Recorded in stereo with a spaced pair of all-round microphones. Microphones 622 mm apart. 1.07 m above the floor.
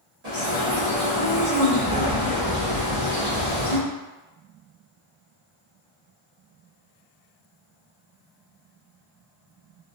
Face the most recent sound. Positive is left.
turn(degrees=-75)  # may be behind; listen again after turning